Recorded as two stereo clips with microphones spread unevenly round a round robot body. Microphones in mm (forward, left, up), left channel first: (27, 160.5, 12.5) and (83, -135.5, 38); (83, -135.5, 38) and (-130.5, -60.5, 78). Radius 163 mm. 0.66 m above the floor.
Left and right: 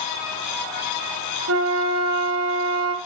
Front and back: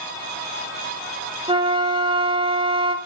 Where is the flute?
130° right, 3.5 m.